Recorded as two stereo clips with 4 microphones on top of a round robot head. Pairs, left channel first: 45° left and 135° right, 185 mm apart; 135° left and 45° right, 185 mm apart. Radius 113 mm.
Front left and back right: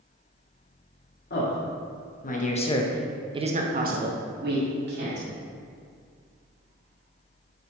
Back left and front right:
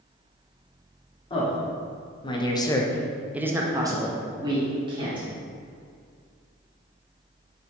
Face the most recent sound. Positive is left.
turn(degrees=-110)